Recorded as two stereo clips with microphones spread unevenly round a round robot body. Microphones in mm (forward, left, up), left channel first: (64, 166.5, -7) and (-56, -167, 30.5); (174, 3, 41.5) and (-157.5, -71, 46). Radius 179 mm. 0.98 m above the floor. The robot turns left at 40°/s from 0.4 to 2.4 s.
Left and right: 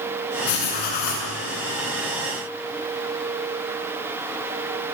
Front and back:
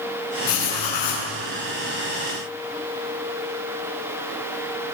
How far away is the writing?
About 7.5 m.